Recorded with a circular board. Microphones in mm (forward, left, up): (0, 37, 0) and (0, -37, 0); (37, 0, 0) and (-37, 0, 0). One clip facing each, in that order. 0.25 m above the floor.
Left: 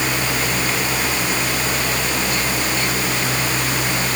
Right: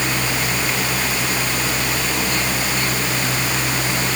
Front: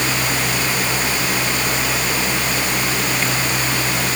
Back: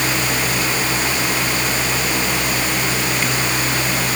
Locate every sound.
Only background noise.